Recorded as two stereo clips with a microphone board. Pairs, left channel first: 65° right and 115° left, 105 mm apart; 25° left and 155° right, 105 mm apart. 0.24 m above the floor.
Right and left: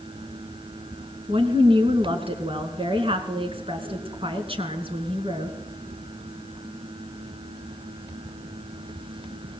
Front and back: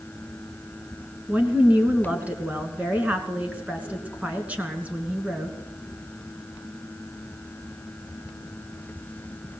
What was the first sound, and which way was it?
A woman speaking, 125° left.